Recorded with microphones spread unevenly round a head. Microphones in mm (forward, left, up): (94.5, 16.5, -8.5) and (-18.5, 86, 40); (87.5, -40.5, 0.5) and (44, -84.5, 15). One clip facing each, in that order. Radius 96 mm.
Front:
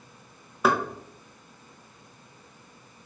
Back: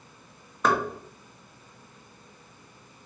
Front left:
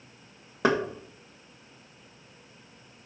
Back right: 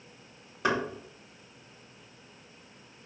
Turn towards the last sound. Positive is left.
turn(degrees=55)